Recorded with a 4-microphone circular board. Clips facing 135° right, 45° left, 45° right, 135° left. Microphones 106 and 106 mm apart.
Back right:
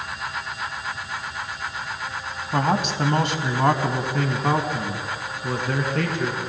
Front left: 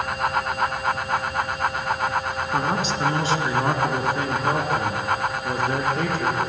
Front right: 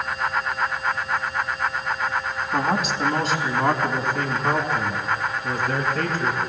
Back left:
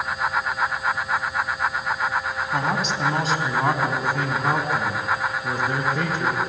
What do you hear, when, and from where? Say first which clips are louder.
2.5 s a man speaking: back right 3 dB, front right 2 dB; 130° right, 3 m; by 6.4 s 155° right, 5 m